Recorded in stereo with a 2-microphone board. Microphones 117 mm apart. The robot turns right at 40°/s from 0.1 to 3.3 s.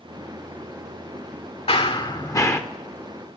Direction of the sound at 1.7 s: 125° left.